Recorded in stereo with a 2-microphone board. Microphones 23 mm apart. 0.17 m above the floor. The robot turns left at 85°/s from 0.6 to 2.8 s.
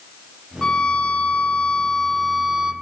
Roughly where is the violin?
Behind left.